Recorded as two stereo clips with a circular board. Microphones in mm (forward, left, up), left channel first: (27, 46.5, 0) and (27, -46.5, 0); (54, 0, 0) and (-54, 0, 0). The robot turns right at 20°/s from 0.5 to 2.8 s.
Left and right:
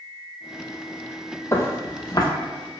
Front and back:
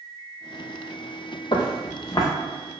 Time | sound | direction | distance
1.5 | footsteps | 30° left | 0.5 m